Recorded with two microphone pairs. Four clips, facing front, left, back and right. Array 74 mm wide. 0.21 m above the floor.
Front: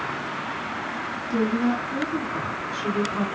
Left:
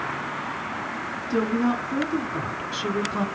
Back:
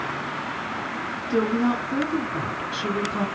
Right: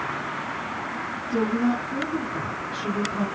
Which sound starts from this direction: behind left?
A woman speaking, at 1.3 s.